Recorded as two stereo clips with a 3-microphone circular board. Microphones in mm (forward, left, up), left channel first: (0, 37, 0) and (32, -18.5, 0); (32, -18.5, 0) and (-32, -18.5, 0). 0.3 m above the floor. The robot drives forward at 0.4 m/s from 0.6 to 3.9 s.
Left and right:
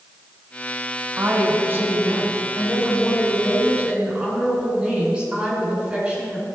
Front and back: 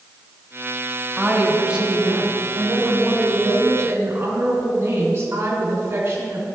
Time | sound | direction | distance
1.2 | a woman speaking | 95° right | 1.5 m